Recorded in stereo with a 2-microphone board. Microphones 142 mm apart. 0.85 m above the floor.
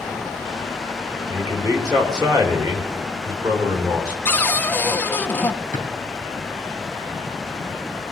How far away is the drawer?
About 3 m.